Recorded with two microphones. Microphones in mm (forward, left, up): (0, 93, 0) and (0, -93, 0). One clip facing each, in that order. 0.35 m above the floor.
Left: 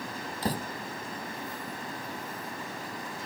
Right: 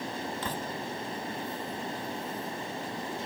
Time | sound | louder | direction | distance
0.4 | a door slam | left 3 dB | 35° left (ahead or behind) | ?